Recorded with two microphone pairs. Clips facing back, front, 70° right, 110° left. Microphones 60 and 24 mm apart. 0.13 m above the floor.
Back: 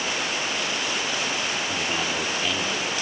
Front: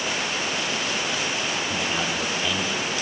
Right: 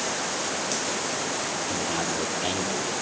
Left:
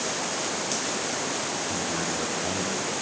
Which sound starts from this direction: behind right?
A man speaking, at 1.7 s.